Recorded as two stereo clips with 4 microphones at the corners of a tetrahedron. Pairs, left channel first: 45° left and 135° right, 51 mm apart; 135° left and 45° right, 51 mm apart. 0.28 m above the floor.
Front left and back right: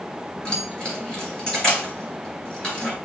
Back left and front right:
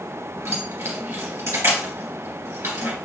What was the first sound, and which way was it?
Keys jangling, 30° right.